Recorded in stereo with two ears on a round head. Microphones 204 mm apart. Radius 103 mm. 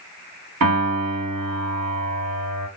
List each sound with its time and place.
0.6 s a piano: 85° right, 1.9 m